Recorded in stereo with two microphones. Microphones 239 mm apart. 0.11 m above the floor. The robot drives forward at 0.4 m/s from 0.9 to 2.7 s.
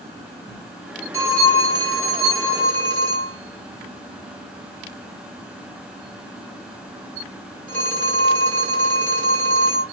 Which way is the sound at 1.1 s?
10° left (ahead or behind).